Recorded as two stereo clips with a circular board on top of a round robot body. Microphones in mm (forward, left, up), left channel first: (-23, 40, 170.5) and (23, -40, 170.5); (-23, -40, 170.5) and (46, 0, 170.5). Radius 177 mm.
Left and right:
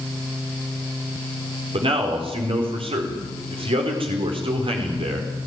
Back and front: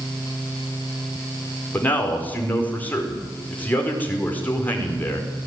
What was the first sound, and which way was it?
A man speaking, 80° right.